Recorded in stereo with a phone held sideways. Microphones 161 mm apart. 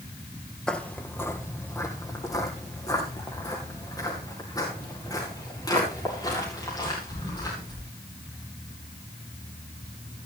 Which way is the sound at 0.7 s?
5° left (ahead or behind).